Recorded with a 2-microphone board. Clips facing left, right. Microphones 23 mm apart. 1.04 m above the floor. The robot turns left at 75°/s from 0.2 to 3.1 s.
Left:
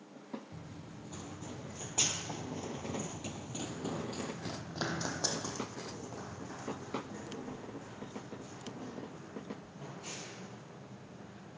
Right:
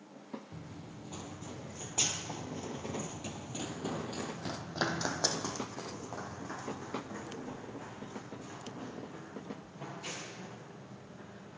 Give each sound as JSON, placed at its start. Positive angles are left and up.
{"t": 0.5, "sound": "running footsteps", "side_deg": -45, "distance_m": 1.5}